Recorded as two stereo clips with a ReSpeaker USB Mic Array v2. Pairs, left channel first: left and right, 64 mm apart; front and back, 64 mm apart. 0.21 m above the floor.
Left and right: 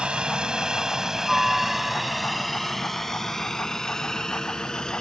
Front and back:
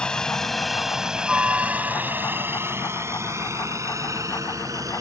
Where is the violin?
I don't hear a violin.